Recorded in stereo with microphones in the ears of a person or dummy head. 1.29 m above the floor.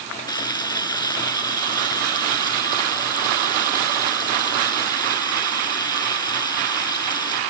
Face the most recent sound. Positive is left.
turn(degrees=25)  # may be behind; listen again after turning